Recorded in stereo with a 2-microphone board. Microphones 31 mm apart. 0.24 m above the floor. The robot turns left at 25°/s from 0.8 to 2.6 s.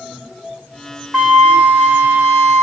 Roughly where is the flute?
Right.